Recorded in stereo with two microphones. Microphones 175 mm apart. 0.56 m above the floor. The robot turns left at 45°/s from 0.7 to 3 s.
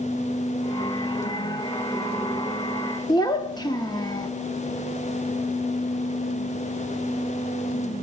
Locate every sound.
3.1 s a child speaking: 25° left (ahead or behind), 0.6 m